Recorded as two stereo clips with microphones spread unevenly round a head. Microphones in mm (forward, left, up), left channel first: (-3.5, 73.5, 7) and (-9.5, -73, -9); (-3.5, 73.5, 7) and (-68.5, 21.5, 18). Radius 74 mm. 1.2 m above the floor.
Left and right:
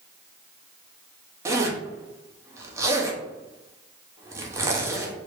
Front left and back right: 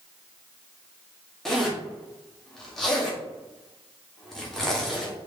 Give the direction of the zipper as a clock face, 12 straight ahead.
1 o'clock.